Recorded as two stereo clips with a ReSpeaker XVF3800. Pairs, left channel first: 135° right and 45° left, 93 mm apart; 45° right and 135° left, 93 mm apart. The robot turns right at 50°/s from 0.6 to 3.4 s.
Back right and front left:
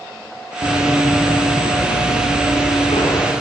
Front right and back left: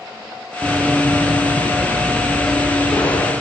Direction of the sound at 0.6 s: 135° right.